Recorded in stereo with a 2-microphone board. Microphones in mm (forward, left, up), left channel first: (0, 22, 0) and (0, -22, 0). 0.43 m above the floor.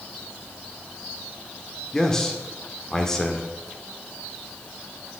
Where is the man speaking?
10° left (ahead or behind), 0.8 m.